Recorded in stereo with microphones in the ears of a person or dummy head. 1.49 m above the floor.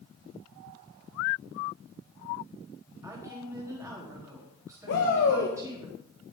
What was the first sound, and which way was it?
A woman speaking, 15° right (ahead or behind).